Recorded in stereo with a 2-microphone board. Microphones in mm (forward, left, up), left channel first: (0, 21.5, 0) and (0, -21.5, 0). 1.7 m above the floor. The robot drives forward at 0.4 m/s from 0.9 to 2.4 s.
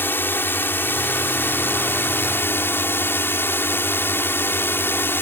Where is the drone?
60° left (ahead or behind); by 5.2 s 65° left (ahead or behind).